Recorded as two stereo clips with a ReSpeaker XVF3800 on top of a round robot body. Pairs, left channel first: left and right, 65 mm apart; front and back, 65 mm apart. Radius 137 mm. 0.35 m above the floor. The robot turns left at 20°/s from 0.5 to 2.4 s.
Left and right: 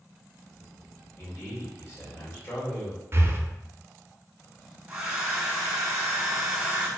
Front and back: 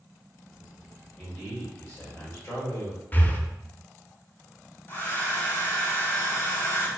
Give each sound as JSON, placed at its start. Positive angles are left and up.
{"t": 1.2, "sound": "a man speaking", "azimuth_deg": 70, "distance_m": 1.9}
{"t": 3.1, "sound": "breathing", "azimuth_deg": -55, "distance_m": 0.6}
{"t": 4.9, "sound": "a hair dryer", "azimuth_deg": -20, "distance_m": 1.3}